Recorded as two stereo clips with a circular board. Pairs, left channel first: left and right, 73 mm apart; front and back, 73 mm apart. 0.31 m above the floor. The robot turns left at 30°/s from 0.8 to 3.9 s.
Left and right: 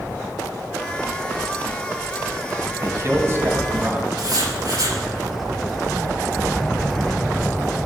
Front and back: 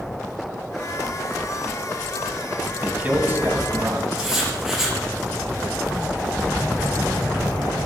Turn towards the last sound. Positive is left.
turn(degrees=-95)